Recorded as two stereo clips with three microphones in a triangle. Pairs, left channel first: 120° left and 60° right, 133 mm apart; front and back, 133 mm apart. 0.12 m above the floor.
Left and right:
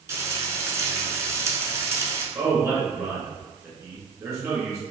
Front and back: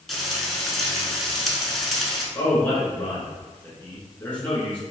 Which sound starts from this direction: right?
Frying, at 0.1 s.